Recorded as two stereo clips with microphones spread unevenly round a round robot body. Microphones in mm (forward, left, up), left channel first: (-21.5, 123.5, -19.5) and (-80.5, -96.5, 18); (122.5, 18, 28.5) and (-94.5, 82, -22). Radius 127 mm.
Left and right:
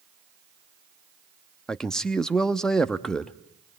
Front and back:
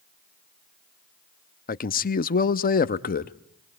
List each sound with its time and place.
1.7 s a man speaking: 10° left, 0.7 m